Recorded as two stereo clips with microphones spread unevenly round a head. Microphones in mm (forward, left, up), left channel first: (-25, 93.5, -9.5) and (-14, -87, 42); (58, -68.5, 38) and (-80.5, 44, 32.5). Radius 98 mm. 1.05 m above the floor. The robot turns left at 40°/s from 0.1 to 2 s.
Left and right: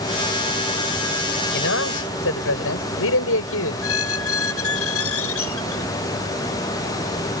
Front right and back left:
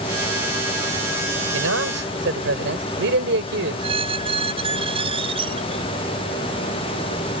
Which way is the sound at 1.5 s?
125° left.